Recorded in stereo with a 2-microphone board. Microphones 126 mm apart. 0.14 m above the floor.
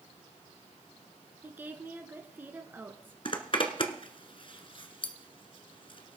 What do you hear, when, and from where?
1.4 s a woman speaking: 15° right (ahead or behind), 1.7 m
3.2 s a zipper: 45° left (ahead or behind), 1.3 m